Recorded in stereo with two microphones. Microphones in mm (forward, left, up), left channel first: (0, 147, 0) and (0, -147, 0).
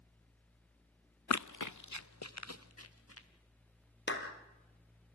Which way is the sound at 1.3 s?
65° left (ahead or behind).